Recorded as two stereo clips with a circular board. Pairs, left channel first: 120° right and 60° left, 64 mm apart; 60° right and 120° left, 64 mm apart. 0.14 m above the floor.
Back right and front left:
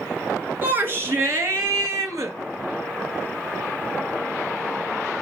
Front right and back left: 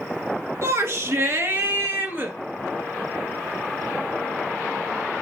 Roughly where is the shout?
Left.